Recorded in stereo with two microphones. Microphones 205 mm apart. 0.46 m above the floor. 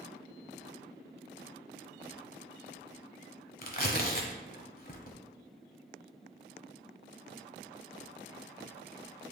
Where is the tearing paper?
45° left (ahead or behind), 1.1 m.